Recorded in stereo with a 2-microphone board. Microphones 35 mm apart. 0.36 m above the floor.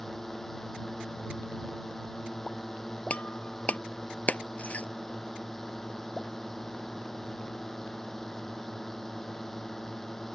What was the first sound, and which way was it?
A drone, 10° left (ahead or behind).